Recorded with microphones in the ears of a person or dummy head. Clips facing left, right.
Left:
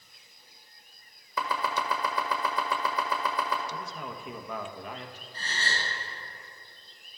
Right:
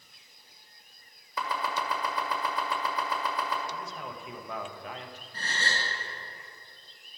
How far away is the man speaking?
About 1.1 m.